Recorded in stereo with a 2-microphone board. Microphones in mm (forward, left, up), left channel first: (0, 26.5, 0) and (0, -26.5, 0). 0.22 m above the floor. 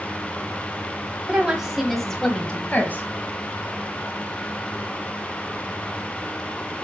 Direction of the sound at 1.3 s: 20° right (ahead or behind).